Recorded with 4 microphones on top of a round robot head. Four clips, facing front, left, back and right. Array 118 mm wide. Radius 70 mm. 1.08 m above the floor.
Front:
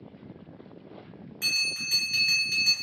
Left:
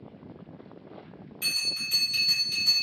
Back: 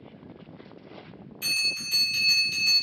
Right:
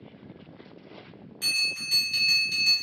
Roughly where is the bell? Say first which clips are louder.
Right 4 dB, even; ahead right.